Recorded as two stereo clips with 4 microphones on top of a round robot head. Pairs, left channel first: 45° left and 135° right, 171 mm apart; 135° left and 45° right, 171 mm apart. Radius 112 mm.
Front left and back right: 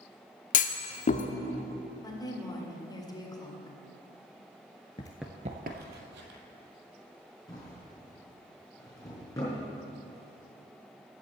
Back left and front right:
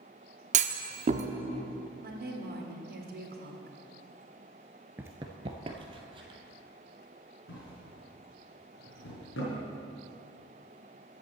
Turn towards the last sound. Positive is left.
turn(degrees=115)